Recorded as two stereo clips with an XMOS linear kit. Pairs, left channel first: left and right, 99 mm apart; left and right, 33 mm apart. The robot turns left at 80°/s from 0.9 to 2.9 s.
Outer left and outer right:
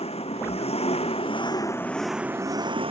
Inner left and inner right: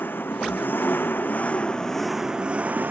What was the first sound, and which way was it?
An engine running, 95° left.